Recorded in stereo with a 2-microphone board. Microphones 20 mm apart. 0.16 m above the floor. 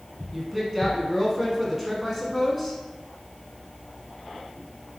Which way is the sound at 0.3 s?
10° right (ahead or behind).